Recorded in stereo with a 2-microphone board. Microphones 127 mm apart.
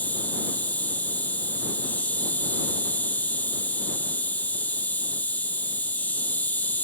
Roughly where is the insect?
Centre.